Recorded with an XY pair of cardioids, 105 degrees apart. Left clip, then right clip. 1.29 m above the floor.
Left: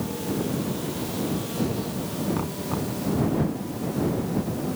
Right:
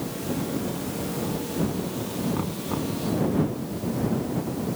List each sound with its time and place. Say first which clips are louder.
2.3 s knocking: even; straight ahead